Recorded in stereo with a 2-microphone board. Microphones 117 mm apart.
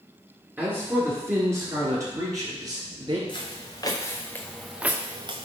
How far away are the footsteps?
About 2.0 m.